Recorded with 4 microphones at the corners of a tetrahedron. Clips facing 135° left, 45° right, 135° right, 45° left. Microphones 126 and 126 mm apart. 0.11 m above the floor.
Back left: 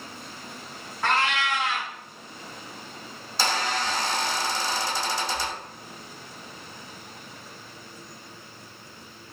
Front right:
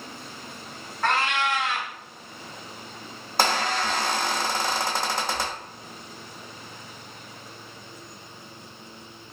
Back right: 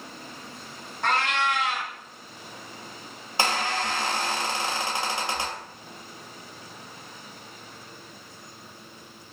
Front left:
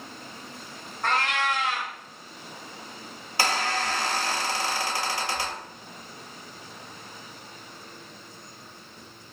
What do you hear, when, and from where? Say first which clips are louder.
1.0 s a cat meowing: front right 1 dB, back right 1 dB; 135° right, 1.2 m
3.4 s a squeak: front right 3 dB, even; 70° right, 0.7 m